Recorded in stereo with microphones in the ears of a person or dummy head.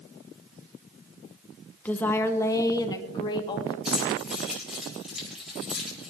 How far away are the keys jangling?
About 5 m.